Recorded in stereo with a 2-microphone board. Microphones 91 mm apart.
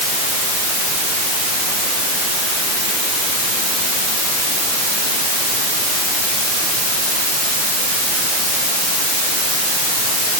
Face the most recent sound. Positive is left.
No sound to turn to.